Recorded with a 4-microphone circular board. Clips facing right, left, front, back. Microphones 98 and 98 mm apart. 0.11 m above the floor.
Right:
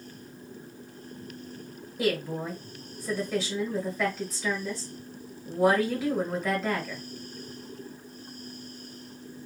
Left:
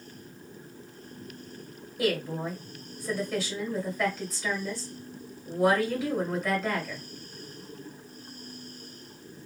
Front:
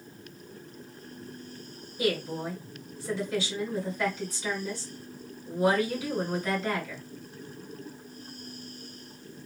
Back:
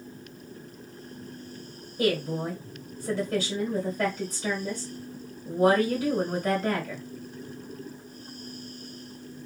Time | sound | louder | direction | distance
2.0 | a woman speaking | even, back 3 dB | 175° left | 1.8 m